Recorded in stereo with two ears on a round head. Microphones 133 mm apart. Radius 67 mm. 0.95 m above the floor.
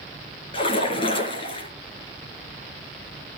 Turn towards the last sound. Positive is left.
turn(degrees=35)  # may be behind; listen again after turning